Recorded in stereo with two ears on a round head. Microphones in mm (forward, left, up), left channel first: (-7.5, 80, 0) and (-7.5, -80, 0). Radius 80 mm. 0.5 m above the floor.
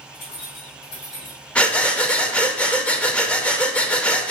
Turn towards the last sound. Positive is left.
turn(degrees=5)  # may be behind; listen again after turning